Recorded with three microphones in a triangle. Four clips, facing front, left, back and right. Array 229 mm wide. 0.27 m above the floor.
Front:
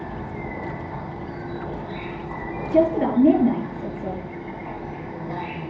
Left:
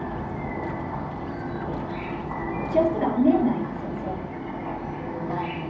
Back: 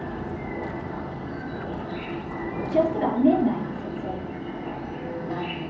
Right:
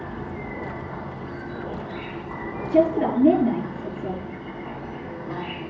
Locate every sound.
0.0 s an insect: 80° left, 2 m
2.7 s a woman speaking: 25° right, 5 m